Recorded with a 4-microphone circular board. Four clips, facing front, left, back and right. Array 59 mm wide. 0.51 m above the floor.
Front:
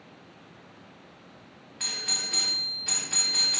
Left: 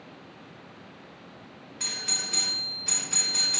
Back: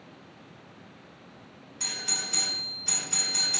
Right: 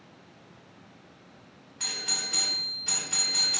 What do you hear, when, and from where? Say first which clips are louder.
1.8 s a doorbell: even, even; straight ahead, 1.3 m